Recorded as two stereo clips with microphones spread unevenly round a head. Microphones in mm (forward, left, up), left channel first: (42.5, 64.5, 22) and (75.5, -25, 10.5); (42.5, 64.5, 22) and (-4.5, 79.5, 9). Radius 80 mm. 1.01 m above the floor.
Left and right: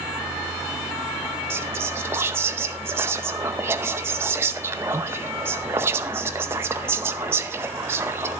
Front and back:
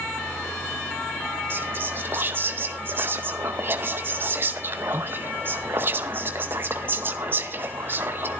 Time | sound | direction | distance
1.5 | whispering | 140° right | 0.6 m